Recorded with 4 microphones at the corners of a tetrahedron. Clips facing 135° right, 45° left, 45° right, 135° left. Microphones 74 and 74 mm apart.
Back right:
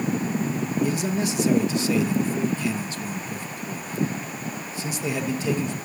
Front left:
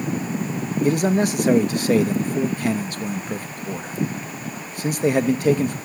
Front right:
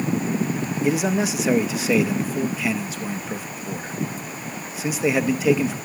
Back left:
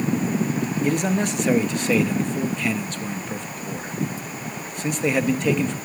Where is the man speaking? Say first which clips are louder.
Front left 10 dB, front right 2 dB; 40° left, 0.9 m.